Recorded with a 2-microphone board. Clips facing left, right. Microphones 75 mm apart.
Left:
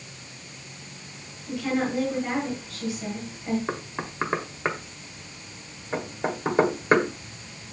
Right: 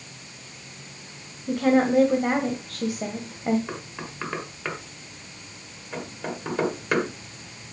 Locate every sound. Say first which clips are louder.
1.5 s a woman speaking: right 7 dB; 55° right (ahead or behind), 1.7 m
3.7 s knocking: left 4 dB; 30° left (ahead or behind), 1.4 m